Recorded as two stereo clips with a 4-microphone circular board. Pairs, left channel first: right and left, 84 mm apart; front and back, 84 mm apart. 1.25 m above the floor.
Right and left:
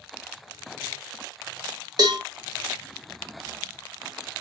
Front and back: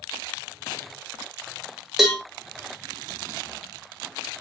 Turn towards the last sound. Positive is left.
turn(degrees=95)